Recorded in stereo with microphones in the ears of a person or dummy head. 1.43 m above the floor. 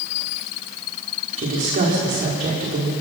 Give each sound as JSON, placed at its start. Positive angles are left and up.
{"t": 1.4, "sound": "a woman speaking", "side_deg": -45, "distance_m": 5.0}